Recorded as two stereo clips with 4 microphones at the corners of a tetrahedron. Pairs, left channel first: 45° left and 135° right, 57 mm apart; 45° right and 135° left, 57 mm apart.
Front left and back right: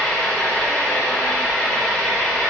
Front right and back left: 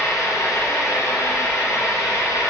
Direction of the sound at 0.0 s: 30° right.